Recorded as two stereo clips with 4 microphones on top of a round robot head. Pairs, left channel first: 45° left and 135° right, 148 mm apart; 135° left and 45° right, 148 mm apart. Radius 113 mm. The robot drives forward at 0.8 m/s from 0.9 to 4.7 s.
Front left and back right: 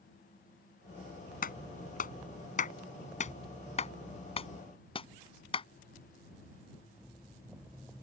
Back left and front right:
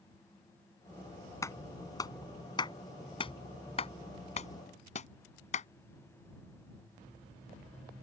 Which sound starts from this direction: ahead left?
A clap, at 1.4 s.